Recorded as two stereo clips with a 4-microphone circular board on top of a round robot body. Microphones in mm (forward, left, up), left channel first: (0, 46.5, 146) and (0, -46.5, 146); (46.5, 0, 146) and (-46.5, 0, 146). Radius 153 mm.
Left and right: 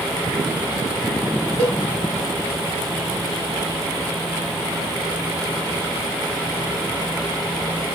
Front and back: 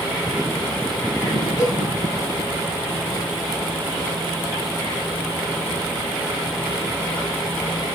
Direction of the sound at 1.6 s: 55° left.